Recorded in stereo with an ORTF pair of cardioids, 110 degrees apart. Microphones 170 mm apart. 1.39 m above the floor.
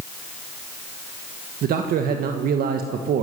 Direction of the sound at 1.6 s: 60° right.